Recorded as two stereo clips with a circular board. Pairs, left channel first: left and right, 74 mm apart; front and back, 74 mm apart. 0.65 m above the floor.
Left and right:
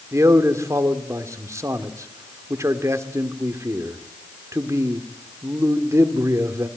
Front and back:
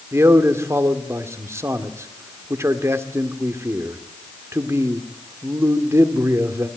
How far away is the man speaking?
About 1.7 m.